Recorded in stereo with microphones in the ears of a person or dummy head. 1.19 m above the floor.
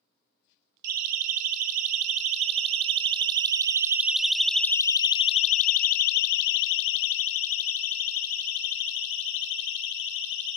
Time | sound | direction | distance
0.8 | a siren | 50° right (ahead or behind) | 3.5 m